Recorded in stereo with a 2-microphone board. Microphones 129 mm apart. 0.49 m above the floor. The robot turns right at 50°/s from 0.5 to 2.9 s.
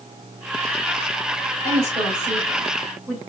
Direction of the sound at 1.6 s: 60° right (ahead or behind).